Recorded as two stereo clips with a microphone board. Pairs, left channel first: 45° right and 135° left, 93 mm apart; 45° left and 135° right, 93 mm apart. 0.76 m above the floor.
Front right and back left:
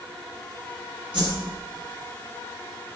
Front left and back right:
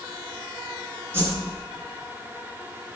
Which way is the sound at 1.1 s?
160° left.